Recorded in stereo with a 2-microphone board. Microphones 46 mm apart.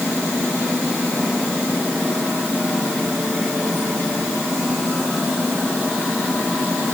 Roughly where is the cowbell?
I don't hear a cowbell.